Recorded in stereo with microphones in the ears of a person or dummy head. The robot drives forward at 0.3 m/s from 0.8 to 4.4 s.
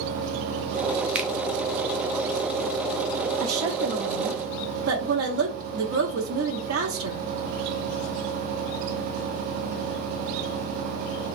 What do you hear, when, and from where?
1.1 s a finger snap: 5° right (ahead or behind), 0.6 m
3.4 s a woman speaking: 75° right (ahead or behind), 0.6 m; by 7.2 s 60° right (ahead or behind), 0.7 m